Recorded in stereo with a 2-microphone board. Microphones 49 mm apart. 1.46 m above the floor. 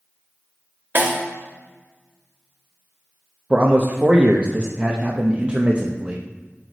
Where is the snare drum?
40° right (ahead or behind), 1.1 m.